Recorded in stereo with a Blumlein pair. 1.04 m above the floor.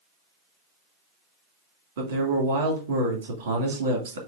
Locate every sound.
2.0 s a man speaking: 55° right, 2.5 m